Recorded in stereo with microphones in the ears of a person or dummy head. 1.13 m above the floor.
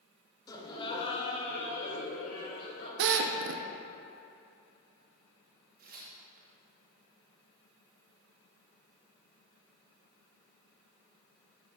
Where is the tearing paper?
45° right (ahead or behind), 1.0 m.